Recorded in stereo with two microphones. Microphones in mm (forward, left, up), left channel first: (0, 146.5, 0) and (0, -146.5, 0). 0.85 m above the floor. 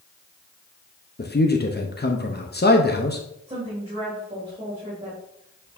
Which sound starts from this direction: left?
A man speaking, at 1.2 s.